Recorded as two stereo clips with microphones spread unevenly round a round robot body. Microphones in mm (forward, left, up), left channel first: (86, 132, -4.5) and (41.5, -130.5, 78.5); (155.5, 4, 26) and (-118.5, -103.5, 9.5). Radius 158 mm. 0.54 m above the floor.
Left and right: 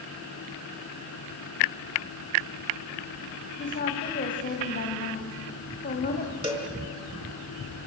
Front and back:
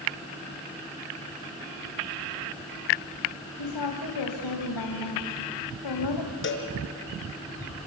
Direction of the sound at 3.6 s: 25° left.